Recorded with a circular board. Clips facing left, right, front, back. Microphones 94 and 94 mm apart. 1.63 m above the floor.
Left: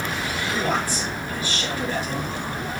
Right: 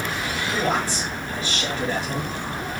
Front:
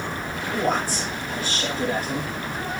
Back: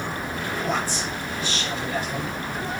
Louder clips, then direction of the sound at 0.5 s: Right 1 dB, front 4 dB; 30° right.